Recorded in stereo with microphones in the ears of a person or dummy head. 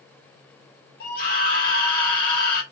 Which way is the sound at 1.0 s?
55° left (ahead or behind).